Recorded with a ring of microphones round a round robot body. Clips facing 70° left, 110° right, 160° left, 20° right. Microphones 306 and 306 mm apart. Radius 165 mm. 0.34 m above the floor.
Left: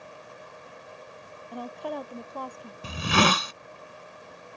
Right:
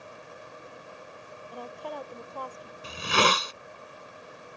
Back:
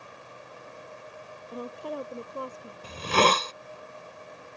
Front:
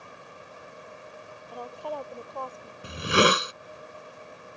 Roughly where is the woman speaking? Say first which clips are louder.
Left 5 dB, back 1 dB; left.